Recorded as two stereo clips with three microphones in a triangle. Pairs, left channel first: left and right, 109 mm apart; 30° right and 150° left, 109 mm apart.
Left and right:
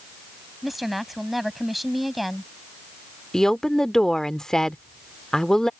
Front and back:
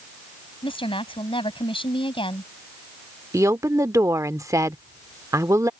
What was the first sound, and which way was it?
A woman speaking, straight ahead.